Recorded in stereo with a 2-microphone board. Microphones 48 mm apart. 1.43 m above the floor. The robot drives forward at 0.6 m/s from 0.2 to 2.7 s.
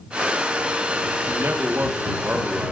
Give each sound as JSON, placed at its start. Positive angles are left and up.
{"t": 1.3, "sound": "a man speaking", "side_deg": -60, "distance_m": 1.3}